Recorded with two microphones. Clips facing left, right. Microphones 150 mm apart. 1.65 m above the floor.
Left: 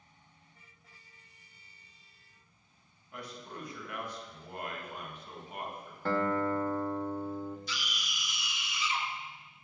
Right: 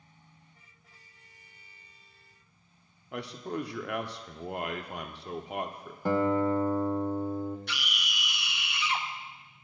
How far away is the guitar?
About 0.7 m.